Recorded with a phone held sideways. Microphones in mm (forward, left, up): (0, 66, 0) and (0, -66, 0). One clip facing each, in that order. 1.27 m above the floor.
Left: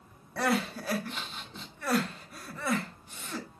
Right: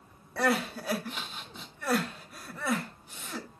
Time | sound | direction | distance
0.4 | crying | 5° right (ahead or behind) | 1.5 m